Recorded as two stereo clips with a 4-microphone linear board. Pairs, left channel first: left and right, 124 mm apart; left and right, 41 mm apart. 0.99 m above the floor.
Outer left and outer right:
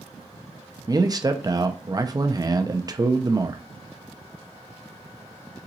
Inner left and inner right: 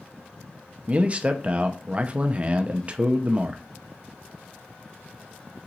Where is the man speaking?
30° right (ahead or behind), 0.7 m.